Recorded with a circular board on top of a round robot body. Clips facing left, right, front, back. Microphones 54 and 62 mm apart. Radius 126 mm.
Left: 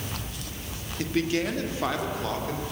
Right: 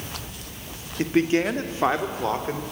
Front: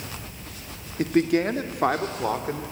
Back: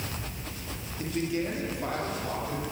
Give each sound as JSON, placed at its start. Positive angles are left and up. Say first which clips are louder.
{"t": 1.0, "sound": "a man speaking", "louder": "right 5 dB, front 9 dB", "azimuth_deg": -30, "distance_m": 1.3}